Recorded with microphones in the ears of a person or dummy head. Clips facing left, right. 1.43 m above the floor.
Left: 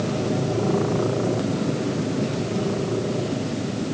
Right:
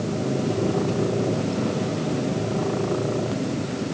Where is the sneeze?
I don't hear a sneeze.